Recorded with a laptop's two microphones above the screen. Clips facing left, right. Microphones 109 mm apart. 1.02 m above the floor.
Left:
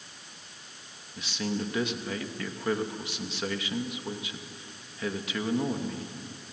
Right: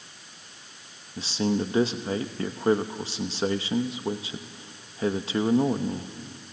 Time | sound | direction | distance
1.2 | a man speaking | 30° right (ahead or behind) | 0.9 m